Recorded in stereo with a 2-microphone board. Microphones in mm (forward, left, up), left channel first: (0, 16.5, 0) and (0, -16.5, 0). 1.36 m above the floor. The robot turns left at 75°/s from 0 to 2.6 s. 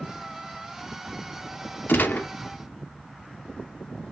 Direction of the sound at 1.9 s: 85° left.